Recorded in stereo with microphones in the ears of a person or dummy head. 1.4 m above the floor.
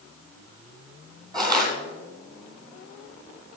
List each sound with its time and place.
1.3 s crushing: 25° right (ahead or behind), 2 m